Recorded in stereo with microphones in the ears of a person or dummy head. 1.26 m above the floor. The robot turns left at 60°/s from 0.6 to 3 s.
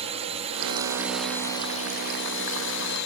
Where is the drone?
150° right; by 3.1 s 70° left.